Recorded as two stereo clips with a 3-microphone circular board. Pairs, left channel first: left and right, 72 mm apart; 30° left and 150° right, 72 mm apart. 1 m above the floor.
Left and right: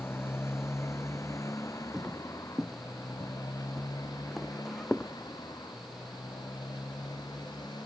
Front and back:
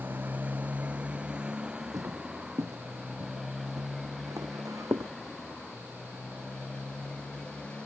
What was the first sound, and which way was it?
A motorcycle, 145° left.